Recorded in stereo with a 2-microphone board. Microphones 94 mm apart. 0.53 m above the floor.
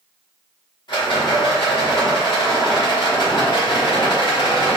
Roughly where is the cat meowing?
I don't hear a cat meowing.